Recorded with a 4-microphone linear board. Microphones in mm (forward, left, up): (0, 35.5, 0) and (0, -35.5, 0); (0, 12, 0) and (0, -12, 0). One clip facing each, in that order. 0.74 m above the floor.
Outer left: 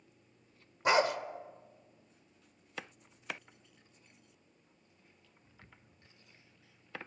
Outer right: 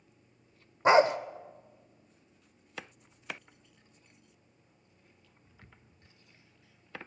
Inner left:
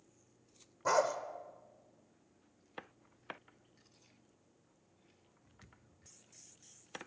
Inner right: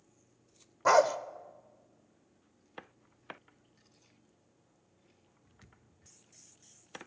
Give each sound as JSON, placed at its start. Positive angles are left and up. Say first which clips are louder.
{"t": 0.8, "sound": "a dog barking", "louder": "outer right 6 dB, inner right 7 dB", "side_deg": -30, "distance_m": 0.5}